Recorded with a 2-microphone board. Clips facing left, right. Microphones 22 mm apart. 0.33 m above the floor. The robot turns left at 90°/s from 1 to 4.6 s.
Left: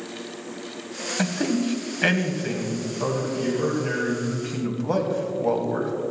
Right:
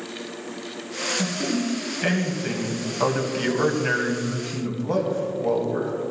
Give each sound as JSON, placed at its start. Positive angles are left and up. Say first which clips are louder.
{"t": 1.2, "sound": "a man speaking", "louder": "left 5 dB", "azimuth_deg": 110, "distance_m": 2.0}